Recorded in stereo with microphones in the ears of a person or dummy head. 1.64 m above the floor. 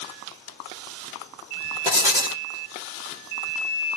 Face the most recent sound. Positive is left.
turn(degrees=-20)  # may be behind; listen again after turning